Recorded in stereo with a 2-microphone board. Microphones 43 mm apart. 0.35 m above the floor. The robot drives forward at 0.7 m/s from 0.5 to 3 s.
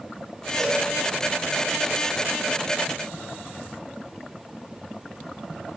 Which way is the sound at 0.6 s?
5° left (ahead or behind).